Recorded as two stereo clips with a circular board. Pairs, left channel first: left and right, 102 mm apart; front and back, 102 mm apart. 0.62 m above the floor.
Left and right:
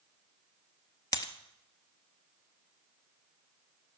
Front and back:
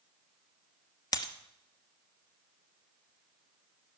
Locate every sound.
1.1 s breaking glass: 45° left, 0.9 m